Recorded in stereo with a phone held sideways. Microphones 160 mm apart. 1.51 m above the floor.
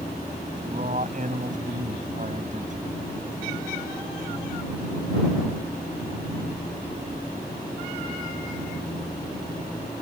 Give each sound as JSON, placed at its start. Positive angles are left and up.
{"t": 0.7, "sound": "a man speaking", "side_deg": -50}